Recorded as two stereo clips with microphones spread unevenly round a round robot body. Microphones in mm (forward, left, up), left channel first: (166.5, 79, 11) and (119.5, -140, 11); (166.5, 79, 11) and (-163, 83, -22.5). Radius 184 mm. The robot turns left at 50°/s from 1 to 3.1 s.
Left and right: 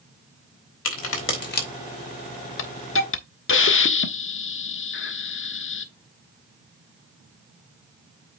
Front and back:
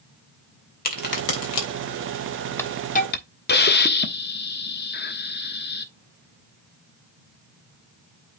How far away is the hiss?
About 1.3 m.